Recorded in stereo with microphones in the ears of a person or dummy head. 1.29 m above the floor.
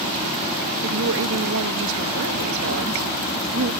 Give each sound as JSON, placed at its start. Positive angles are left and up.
{"t": 0.8, "sound": "a woman speaking", "side_deg": -75}